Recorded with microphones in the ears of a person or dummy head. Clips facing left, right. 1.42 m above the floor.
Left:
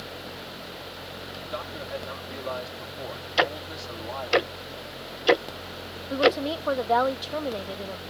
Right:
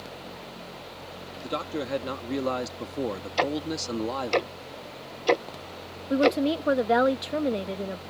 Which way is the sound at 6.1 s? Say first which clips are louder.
Right 1 dB; 25° right (ahead or behind).